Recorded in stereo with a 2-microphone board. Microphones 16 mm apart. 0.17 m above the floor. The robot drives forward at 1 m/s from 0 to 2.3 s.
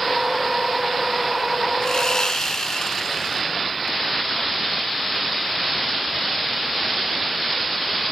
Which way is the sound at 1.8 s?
50° left (ahead or behind).